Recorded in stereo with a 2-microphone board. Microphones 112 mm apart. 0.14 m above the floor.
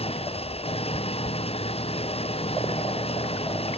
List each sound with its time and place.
0.0 s an engine running: 60° left (ahead or behind)